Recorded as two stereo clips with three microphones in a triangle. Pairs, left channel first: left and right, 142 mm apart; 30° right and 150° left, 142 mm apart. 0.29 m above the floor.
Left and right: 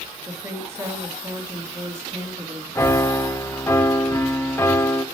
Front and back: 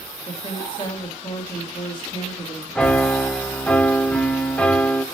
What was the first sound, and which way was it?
A woman speaking, 35° right.